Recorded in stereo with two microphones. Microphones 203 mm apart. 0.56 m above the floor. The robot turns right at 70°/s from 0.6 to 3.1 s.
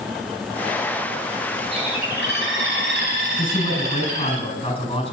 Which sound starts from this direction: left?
A man speaking, at 3.4 s.